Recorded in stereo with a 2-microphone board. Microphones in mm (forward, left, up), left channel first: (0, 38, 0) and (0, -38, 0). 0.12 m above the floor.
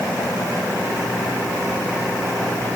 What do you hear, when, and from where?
Only background noise.